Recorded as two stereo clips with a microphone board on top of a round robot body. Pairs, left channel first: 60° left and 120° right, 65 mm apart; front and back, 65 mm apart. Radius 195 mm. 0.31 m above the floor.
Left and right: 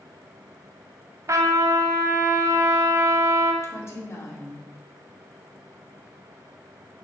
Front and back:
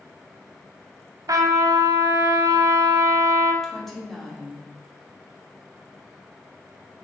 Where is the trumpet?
160° right, 0.7 m.